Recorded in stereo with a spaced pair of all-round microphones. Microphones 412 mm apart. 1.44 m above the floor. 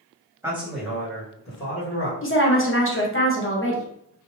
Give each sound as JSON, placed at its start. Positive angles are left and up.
{"t": 0.4, "sound": "a man speaking", "side_deg": -5, "distance_m": 1.4}
{"t": 2.2, "sound": "a woman speaking", "side_deg": 30, "distance_m": 0.9}